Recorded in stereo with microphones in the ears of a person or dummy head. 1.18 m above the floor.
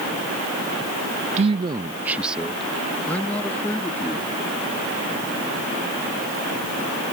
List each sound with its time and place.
1.4 s a man speaking: 40° right (ahead or behind); by 4.3 s 10° left (ahead or behind)